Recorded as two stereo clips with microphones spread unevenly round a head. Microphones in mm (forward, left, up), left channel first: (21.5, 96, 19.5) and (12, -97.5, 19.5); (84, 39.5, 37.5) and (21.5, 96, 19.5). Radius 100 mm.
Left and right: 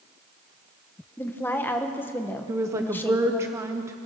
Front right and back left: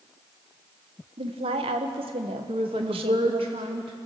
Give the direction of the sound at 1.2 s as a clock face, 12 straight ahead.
6 o'clock.